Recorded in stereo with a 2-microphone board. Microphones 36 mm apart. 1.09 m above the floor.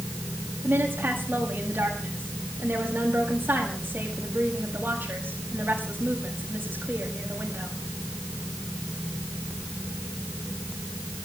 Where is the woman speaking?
60° right (ahead or behind), 7.5 m.